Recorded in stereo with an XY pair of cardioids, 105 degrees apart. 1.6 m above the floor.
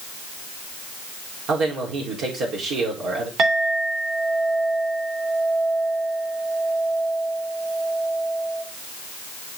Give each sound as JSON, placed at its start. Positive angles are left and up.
{"t": 1.5, "sound": "a man speaking", "azimuth_deg": -70, "distance_m": 4.0}
{"t": 3.4, "sound": "a clink", "azimuth_deg": -70, "distance_m": 3.0}